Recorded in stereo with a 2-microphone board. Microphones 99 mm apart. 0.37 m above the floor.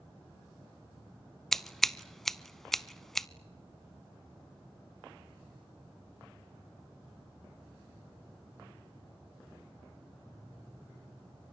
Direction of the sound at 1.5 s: Centre (ahead or behind).